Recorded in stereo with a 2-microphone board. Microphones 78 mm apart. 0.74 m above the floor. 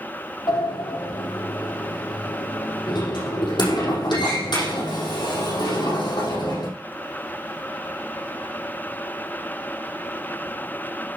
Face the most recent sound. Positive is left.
turn(degrees=70)  # may be behind; listen again after turning